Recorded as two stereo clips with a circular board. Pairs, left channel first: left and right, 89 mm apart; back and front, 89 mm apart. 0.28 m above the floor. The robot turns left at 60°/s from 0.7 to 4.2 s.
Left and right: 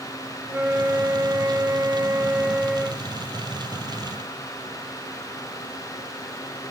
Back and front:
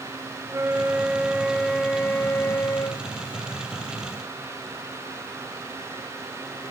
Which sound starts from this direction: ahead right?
A flute, at 0.5 s.